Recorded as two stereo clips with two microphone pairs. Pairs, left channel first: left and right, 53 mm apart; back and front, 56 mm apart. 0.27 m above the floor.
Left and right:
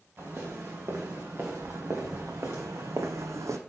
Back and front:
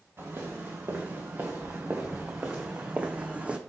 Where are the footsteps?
45° right, 2.5 m; by 3.6 s 75° right, 0.8 m.